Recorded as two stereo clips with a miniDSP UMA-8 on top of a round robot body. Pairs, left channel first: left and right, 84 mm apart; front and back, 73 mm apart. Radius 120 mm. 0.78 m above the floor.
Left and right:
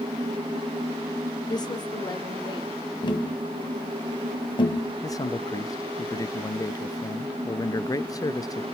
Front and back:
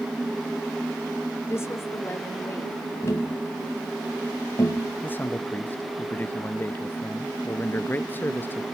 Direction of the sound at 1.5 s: 55° left.